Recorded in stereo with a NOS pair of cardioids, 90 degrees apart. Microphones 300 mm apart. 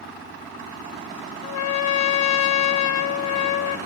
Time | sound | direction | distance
1.4 | a trumpet | 65° left | 0.6 m